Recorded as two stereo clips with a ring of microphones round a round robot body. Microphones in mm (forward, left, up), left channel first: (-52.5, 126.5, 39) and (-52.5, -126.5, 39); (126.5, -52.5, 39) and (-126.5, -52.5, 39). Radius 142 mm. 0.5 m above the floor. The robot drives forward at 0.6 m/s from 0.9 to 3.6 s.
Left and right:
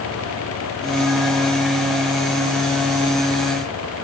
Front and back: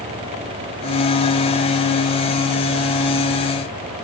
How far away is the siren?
No siren in this recording.